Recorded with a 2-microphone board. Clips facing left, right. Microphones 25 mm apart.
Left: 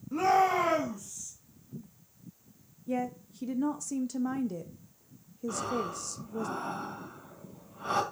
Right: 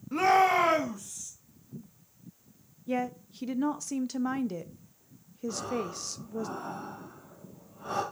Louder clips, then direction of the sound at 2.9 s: Right 2 dB; 45° right (ahead or behind).